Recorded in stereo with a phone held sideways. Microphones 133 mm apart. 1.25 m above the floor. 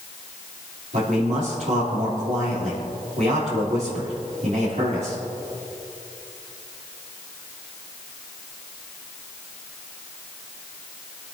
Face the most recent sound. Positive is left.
turn(degrees=-70)  # may be behind; listen again after turning